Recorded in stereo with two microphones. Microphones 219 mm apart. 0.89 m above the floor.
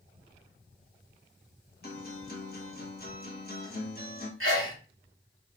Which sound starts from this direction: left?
A guitar, at 1.8 s.